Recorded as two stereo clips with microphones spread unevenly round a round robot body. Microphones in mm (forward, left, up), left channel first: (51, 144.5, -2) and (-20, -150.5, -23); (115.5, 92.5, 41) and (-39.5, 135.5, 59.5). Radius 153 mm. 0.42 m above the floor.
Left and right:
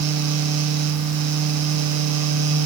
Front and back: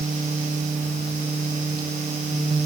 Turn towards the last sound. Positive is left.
No sound to turn to.